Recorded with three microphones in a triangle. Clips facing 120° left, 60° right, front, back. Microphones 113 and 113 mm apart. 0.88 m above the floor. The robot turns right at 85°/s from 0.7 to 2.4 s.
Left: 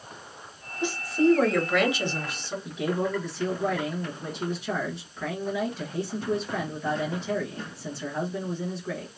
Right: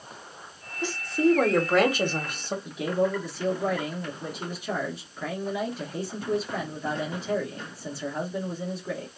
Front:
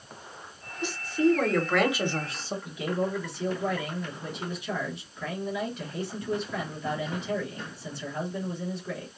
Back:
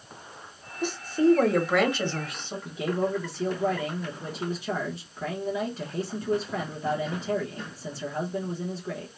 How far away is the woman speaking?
About 1.0 m.